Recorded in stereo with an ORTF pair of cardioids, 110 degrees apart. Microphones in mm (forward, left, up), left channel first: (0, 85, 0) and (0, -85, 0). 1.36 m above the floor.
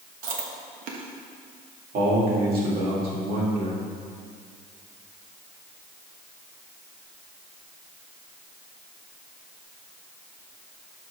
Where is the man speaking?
65° right, 3 m.